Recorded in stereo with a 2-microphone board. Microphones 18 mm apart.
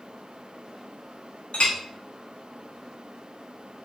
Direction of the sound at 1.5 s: 65° left (ahead or behind).